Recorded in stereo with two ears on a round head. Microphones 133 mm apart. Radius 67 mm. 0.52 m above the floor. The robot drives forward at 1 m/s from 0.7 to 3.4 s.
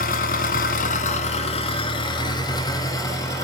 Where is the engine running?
65° left (ahead or behind), 1.5 m; by 3.4 s 20° left (ahead or behind), 3.5 m.